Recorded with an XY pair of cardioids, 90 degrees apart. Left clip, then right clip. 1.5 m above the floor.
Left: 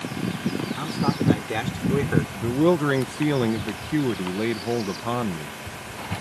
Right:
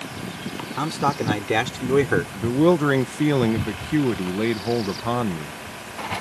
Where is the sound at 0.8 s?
55° right; by 2.2 s 50° right.